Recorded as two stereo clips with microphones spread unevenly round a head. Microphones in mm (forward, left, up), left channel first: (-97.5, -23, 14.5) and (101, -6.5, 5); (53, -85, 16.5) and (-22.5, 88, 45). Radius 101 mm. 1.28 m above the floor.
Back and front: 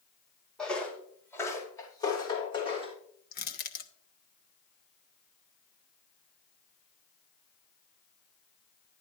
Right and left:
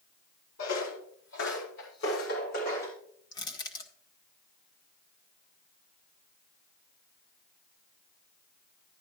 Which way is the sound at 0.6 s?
90° right.